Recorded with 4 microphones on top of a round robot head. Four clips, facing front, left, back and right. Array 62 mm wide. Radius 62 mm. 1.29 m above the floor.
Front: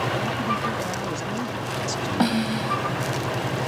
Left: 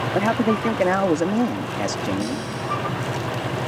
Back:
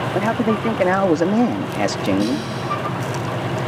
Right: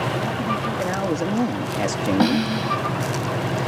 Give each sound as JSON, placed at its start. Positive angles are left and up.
{"t": 0.1, "sound": "a man speaking", "azimuth_deg": 135}
{"t": 2.2, "sound": "a snare drum", "azimuth_deg": -60}